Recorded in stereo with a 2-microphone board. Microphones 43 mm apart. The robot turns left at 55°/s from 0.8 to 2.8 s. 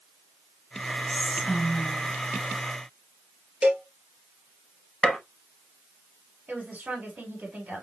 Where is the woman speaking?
45° right (ahead or behind), 3.5 m.